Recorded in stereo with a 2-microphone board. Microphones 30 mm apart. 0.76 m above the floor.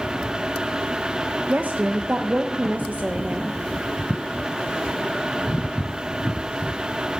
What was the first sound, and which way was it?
A woman speaking, 55° right (ahead or behind).